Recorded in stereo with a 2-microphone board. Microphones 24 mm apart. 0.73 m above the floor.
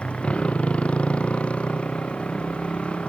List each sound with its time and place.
0.0 s a motorcycle: 60° left (ahead or behind)